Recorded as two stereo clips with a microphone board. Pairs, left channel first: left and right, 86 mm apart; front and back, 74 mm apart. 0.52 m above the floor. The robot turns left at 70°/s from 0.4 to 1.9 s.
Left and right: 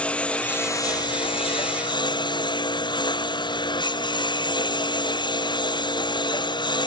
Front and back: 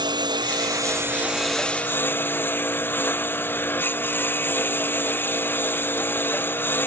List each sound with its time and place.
0.0 s a lawn mower: 165° left; by 6.9 s 60° left